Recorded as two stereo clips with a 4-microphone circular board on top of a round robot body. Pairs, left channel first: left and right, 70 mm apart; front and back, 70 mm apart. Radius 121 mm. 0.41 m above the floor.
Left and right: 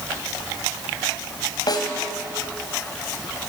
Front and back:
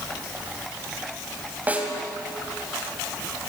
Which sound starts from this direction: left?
A snare drum, at 1.7 s.